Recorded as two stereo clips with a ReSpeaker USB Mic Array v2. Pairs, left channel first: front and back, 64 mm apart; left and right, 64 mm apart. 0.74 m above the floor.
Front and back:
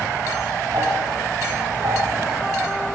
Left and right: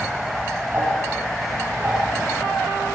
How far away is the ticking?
About 8 m.